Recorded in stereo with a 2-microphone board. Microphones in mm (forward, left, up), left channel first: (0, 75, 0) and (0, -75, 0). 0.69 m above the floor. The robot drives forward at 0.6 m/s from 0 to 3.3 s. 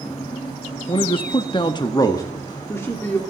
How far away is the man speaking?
About 0.6 m.